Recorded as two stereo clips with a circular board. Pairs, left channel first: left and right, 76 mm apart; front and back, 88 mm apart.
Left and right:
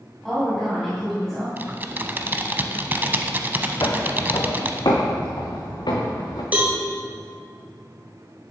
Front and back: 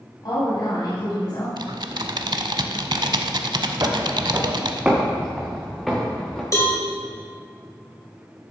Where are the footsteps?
130° left, 1.3 m; by 6.4 s 85° left, 2.5 m.